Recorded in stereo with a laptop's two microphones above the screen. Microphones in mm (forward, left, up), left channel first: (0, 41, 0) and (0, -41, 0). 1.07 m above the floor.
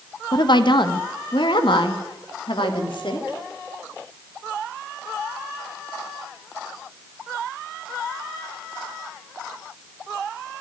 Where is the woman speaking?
65° left (ahead or behind), 0.9 m; by 3.4 s 80° left, 2.5 m.